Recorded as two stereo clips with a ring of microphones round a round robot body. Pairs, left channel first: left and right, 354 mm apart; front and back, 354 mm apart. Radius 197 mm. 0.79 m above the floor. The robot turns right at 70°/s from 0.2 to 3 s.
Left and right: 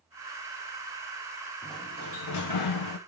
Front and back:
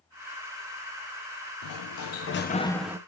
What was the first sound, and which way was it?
A sliding door, 5° left.